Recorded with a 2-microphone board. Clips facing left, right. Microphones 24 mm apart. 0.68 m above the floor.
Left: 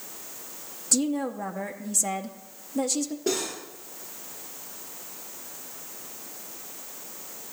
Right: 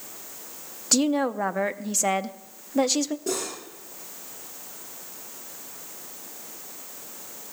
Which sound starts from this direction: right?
A woman speaking, at 0.9 s.